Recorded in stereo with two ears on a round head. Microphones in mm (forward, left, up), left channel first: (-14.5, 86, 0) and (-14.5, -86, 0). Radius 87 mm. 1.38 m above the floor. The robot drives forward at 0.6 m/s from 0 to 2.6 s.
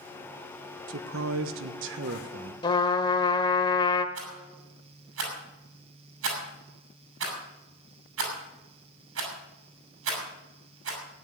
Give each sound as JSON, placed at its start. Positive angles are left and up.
{"t": 0.9, "sound": "a man speaking", "side_deg": -75, "distance_m": 1.4}
{"t": 2.6, "sound": "a trumpet", "side_deg": 25, "distance_m": 1.2}
{"t": 4.2, "sound": "a rattle", "side_deg": -85, "distance_m": 6.0}